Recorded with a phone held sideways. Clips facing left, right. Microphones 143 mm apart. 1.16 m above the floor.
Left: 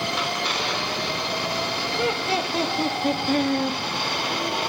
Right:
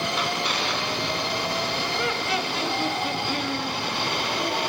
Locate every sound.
1.9 s laughter: 25° left (ahead or behind), 2 m; by 3.8 s 50° left (ahead or behind), 2.5 m